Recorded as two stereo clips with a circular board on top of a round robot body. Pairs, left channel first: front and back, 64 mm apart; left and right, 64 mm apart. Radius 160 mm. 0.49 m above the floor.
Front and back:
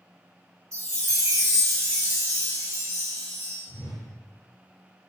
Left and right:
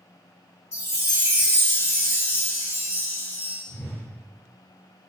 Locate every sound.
0.7 s a chime: 140° left, 0.8 m
3.7 s a whoosh: 175° left, 0.7 m